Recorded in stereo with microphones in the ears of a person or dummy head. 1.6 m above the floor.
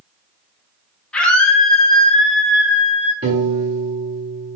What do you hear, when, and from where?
1.1 s a scream: 5° left (ahead or behind), 1.9 m; by 3.1 s 5° right (ahead or behind), 3 m
3.2 s a piano: 20° right (ahead or behind), 1.3 m